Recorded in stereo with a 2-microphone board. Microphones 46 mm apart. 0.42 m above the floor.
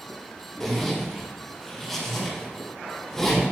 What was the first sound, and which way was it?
A zipper, 10° left (ahead or behind).